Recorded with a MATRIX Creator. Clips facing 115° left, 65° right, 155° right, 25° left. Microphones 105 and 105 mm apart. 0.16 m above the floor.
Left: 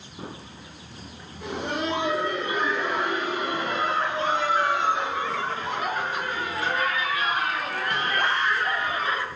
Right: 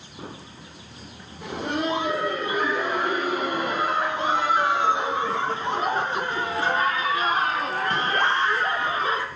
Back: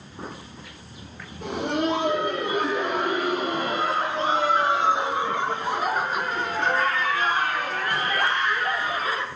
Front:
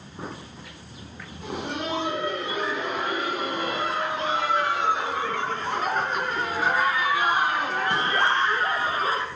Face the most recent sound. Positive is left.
turn(degrees=-15)